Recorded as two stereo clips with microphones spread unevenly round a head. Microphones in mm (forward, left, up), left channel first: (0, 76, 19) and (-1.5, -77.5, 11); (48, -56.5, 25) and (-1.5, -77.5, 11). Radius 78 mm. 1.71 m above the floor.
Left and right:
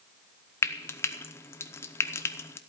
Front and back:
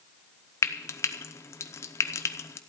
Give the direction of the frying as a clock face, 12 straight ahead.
11 o'clock.